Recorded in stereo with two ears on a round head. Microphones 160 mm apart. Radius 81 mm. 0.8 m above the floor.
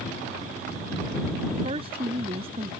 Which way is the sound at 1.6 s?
30° right (ahead or behind).